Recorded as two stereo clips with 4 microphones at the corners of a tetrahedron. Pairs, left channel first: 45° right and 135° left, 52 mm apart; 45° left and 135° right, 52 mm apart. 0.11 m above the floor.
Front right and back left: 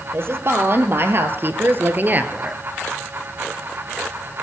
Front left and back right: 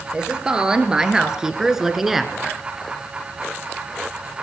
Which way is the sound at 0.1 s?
160° left.